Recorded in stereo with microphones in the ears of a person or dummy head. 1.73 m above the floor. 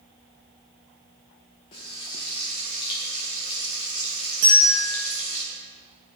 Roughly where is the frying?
Left.